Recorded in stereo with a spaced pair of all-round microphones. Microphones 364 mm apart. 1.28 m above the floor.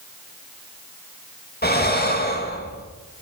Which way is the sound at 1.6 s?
25° left (ahead or behind).